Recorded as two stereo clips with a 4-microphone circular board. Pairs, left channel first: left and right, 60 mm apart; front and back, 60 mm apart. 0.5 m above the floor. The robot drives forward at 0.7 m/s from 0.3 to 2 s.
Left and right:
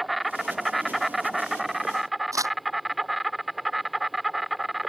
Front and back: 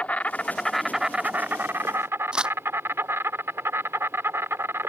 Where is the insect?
Straight ahead; by 4.9 s straight behind.